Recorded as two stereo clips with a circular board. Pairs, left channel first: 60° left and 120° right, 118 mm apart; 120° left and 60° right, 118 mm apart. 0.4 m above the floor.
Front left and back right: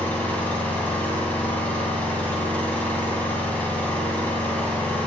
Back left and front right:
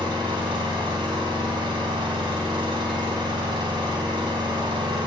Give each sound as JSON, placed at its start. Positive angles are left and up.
{"t": 0.0, "sound": "an engine running", "azimuth_deg": -15, "distance_m": 3.0}